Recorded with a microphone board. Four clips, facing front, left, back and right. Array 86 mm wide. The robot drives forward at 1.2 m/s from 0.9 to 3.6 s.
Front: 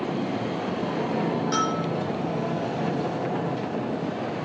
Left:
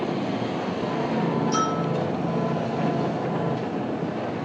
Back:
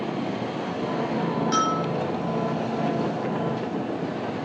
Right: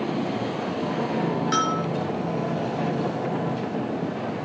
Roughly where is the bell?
Right.